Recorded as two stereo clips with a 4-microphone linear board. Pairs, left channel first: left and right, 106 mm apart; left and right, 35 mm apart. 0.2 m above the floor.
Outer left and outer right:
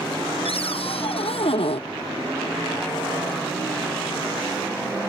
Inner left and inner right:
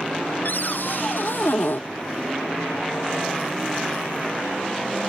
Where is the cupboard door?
70° left (ahead or behind).